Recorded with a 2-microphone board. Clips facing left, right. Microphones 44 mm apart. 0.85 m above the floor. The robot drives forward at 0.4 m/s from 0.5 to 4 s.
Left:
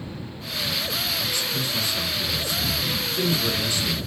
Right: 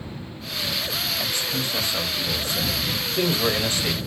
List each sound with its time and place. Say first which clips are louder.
1.2 s a man speaking: even; 40° right (ahead or behind), 2 m; by 4.0 s 55° right (ahead or behind), 1.7 m